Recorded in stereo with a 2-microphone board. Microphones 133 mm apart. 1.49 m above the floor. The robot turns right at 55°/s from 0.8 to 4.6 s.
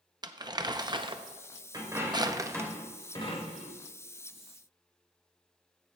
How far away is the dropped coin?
About 3.5 m.